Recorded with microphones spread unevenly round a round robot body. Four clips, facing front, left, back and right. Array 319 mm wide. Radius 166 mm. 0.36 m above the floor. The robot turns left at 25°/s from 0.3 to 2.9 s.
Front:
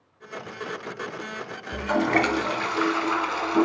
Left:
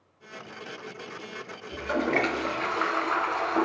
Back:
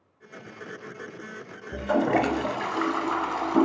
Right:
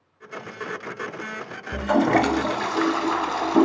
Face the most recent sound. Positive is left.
turn(degrees=-115)